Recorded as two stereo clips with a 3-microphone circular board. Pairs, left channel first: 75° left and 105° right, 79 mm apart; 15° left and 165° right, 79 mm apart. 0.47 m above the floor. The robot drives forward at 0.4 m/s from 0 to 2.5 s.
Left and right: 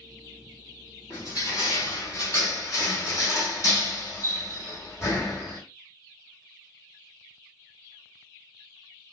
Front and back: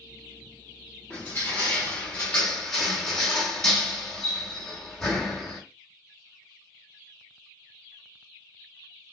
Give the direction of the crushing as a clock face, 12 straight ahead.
10 o'clock.